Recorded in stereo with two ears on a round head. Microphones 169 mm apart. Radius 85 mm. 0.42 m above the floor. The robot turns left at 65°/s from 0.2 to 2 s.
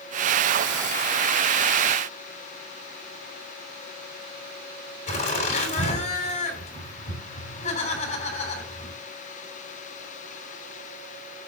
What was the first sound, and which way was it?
Laughter, 40° left (ahead or behind).